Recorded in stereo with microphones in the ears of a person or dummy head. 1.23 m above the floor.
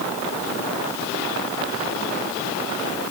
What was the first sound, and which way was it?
Only background noise.